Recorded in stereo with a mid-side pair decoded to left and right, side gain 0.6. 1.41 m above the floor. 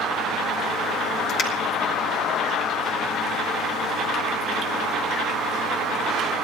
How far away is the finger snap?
About 4 m.